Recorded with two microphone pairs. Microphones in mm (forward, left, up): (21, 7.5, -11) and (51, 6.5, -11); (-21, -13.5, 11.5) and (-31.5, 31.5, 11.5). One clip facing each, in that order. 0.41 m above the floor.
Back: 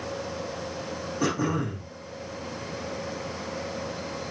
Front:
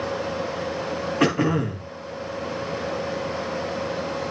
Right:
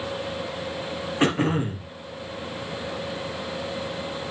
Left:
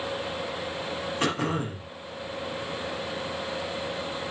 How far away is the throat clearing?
About 2.5 m.